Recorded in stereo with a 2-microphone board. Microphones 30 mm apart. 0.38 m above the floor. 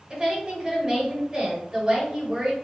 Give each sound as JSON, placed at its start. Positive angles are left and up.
{"t": 0.1, "sound": "a woman speaking", "side_deg": -20, "distance_m": 1.1}